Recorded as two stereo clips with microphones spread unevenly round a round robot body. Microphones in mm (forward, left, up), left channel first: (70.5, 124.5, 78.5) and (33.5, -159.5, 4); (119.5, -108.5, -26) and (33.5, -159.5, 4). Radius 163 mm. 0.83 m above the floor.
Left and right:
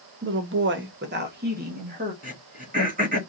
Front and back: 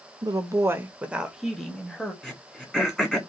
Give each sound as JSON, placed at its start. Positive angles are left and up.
{"t": 0.2, "sound": "a woman speaking", "azimuth_deg": -95, "distance_m": 1.0}
{"t": 2.2, "sound": "throat clearing", "azimuth_deg": -45, "distance_m": 2.0}